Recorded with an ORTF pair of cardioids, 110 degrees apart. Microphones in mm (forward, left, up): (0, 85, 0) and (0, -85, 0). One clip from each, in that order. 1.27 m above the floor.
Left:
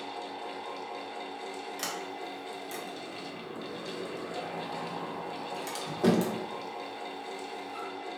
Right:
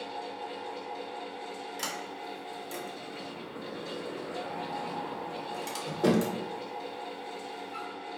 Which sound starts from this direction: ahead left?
A fan, at 0.0 s.